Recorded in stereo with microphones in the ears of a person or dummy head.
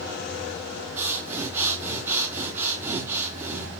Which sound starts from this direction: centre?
Breathing, at 1.0 s.